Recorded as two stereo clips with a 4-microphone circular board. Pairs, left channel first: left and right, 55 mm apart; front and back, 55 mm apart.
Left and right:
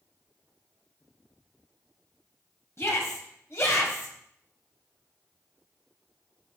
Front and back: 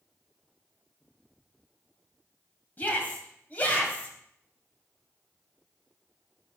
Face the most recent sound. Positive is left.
turn(degrees=60)